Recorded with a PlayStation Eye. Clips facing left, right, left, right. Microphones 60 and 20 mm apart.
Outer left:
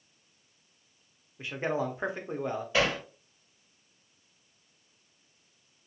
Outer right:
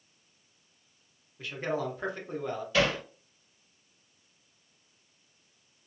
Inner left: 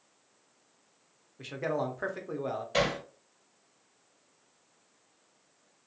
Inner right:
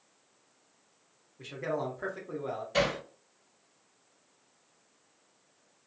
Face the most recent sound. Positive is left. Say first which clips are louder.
# outer right 1 dB, even
turn(degrees=20)  # may be behind; listen again after turning